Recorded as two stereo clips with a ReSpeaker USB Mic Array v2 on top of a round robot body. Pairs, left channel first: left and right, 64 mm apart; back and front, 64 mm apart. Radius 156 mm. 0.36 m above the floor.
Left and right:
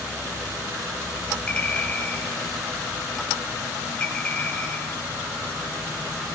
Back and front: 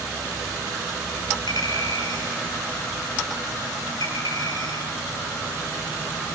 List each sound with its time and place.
1.5 s a clink: 165° left, 10 m